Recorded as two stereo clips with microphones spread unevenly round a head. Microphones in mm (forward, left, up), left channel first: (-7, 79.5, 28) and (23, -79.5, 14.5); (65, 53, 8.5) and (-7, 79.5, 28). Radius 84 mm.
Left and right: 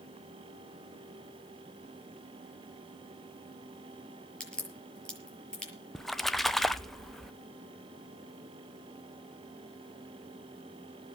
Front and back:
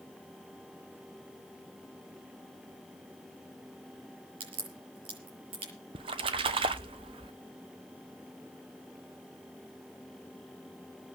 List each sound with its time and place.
4.4 s a crack: 175° right, 6.5 m
6.0 s a splash: 170° right, 0.8 m